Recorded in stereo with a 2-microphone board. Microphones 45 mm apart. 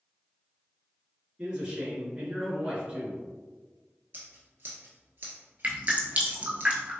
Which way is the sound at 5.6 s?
35° right (ahead or behind).